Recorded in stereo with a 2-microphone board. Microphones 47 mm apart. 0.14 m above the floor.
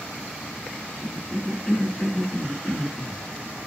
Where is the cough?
20° left (ahead or behind), 1.1 m.